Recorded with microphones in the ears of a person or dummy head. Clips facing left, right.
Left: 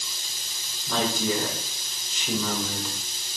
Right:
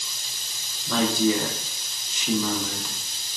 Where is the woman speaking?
60° right (ahead or behind), 0.6 m.